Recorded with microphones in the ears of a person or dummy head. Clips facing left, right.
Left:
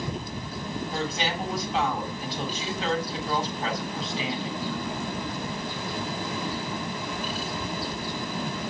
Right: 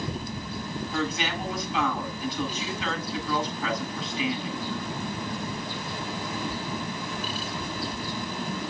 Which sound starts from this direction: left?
A woman speaking, at 0.9 s.